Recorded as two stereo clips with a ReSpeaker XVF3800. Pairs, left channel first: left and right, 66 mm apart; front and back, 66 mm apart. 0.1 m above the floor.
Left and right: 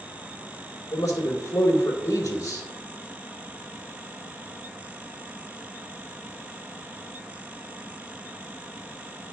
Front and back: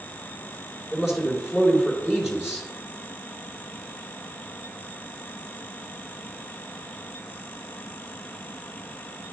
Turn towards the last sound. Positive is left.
turn(degrees=100)